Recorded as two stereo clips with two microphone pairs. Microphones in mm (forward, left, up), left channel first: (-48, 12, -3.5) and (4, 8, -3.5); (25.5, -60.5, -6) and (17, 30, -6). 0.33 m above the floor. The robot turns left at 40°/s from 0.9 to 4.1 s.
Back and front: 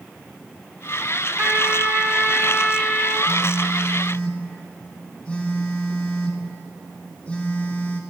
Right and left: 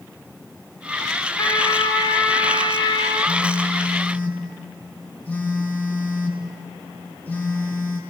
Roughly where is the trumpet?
Ahead right.